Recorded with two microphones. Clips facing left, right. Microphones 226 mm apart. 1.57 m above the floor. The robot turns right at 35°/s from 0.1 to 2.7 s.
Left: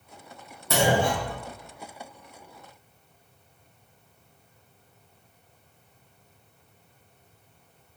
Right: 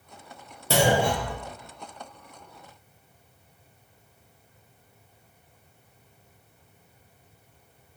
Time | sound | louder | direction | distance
0.7 | a clunk | right 1 dB | 30° right (ahead or behind) | 0.8 m